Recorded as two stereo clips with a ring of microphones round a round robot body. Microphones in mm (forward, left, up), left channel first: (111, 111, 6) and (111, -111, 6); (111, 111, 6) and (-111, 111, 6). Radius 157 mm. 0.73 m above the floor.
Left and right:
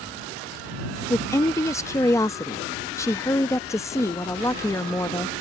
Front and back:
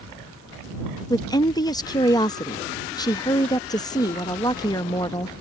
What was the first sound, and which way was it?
A woman speaking, 35° left.